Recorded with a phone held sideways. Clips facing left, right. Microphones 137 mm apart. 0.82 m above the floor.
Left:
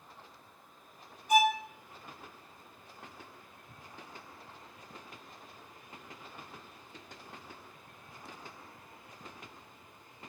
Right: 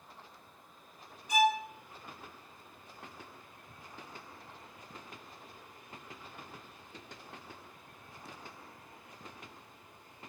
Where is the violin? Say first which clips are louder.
Left 2 dB; 55° left (ahead or behind), 0.8 m.